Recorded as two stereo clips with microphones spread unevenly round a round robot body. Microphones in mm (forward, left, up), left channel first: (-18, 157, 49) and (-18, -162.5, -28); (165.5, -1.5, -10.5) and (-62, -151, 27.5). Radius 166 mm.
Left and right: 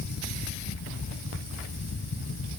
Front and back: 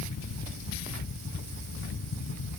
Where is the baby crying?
No baby crying in this recording.